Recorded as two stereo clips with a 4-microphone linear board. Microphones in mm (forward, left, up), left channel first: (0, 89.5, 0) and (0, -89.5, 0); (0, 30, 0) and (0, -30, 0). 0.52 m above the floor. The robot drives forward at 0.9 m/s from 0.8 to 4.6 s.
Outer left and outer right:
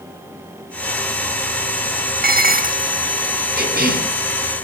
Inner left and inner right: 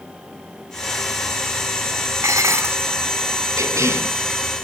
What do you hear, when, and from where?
2.2 s dishes clattering: 55° right (ahead or behind), 0.6 m; by 2.9 s 40° right (ahead or behind), 0.8 m
3.6 s a cough: 65° right (ahead or behind), 6 m; by 4.1 s 60° right (ahead or behind), 6 m